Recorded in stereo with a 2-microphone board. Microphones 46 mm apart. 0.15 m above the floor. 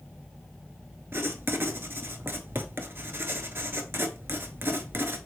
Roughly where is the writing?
Right.